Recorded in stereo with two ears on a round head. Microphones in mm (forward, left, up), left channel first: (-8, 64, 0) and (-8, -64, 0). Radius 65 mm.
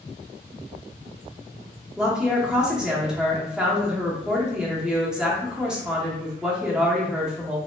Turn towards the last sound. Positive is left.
turn(degrees=-5)  # may be behind; listen again after turning